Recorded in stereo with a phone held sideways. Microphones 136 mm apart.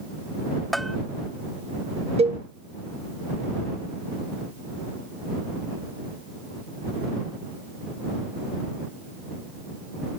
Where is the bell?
Centre (ahead or behind).